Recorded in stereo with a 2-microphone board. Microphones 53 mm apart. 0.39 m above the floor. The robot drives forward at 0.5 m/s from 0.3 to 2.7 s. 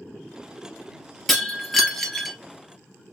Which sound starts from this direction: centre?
Breaking glass, at 1.3 s.